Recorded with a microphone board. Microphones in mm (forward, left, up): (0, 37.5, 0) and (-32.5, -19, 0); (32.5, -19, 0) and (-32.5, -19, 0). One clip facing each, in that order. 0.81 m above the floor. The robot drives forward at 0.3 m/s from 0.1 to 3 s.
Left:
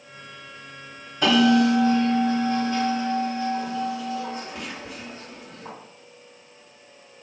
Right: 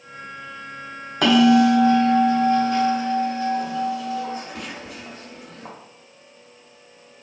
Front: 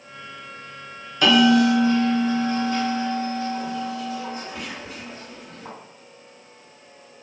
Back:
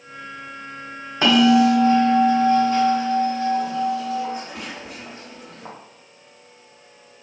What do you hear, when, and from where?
1.2 s a bell: 120° right, 0.8 m; by 5.7 s 145° right, 1.2 m